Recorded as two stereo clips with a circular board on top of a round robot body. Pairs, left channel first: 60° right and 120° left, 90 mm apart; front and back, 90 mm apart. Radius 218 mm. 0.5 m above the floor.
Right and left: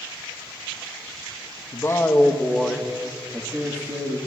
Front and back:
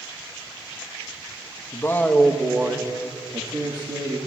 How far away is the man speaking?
About 1.3 m.